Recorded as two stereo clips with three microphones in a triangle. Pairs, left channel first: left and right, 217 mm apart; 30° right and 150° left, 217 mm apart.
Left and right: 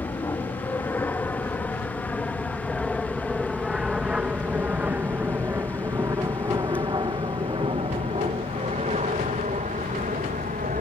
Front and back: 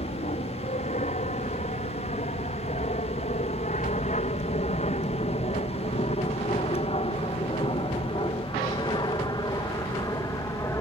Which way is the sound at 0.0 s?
15° left.